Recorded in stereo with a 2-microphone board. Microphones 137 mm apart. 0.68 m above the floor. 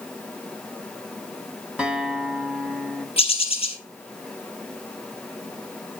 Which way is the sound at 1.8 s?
5° right (ahead or behind).